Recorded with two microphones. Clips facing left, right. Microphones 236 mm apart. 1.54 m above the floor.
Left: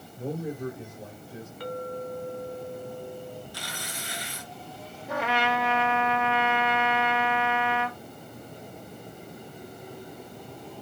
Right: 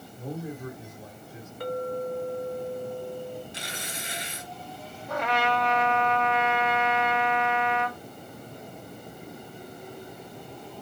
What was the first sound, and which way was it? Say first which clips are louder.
A man speaking: left 4 dB; 35° left (ahead or behind).